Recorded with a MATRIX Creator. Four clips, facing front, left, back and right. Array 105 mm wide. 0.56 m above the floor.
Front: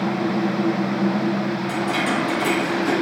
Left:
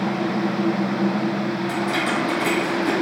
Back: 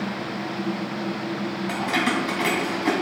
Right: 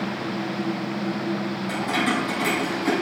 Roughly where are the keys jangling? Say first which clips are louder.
Right 2 dB, back 1 dB; behind.